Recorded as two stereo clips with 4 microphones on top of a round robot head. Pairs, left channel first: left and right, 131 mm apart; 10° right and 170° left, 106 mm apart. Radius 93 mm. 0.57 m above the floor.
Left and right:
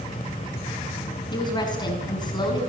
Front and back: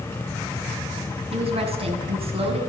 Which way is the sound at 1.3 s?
145° left.